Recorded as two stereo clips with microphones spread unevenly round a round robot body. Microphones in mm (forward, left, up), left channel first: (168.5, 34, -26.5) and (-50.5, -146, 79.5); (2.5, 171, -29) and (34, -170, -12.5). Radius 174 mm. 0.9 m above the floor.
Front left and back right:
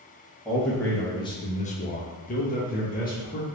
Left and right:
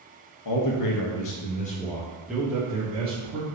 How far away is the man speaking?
About 0.9 m.